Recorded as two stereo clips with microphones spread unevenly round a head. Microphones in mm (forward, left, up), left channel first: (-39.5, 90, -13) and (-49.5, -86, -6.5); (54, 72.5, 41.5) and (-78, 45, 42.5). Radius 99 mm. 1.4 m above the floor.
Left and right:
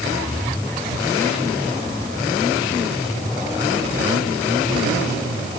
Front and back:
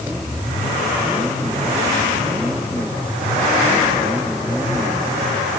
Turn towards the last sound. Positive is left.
No sound to turn to.